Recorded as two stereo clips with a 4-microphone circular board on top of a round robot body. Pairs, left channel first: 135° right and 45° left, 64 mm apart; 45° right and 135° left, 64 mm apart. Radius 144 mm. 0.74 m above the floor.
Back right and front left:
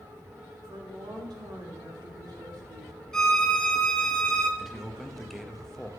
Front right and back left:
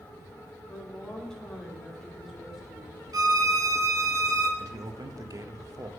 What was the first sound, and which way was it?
A woman speaking, 25° left.